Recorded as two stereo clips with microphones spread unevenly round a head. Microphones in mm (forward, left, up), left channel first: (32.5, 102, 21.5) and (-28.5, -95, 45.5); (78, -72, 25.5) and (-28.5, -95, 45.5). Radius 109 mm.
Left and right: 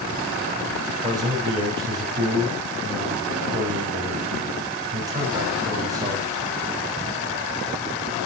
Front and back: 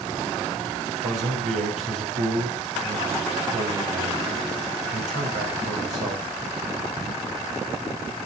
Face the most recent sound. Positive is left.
turn(degrees=180)